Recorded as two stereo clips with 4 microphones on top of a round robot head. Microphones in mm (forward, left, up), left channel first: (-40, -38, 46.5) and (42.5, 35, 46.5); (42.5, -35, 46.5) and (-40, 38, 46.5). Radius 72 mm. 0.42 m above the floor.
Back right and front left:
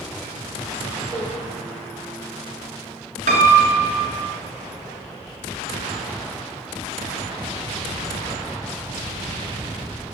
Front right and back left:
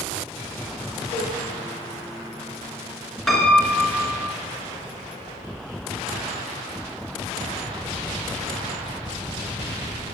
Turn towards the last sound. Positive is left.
turn(degrees=45)